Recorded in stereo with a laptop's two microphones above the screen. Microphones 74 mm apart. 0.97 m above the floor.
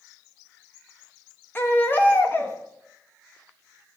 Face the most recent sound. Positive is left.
turn(degrees=30)  # may be behind; listen again after turning